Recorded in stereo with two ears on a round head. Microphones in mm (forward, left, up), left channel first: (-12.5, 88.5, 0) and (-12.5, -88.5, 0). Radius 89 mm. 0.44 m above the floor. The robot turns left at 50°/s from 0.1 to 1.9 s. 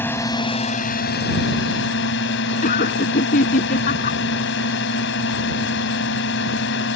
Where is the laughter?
45° left (ahead or behind).